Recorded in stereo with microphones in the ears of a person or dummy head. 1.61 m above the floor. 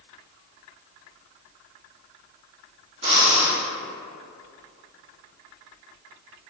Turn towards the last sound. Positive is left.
turn(degrees=-35)  # may be behind; listen again after turning